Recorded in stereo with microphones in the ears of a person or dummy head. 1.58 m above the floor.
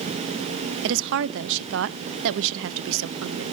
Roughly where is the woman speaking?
Right.